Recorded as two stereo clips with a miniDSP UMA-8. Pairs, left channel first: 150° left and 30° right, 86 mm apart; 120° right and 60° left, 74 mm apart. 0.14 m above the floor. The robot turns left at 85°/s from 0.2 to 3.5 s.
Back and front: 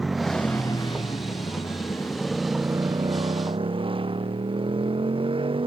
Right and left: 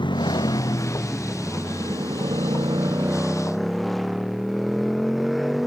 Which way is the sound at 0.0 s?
120° right.